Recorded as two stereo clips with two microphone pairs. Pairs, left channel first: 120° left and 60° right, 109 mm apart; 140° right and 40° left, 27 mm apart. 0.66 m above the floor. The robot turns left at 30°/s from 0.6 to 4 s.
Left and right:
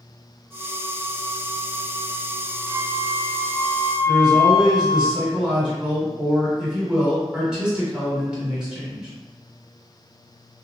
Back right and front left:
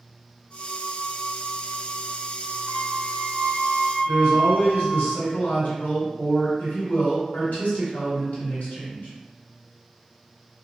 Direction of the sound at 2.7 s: 165° left.